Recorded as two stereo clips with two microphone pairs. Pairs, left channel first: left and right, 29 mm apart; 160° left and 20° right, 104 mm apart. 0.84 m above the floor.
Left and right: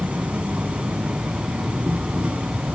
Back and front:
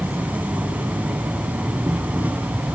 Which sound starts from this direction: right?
An insect, at 0.0 s.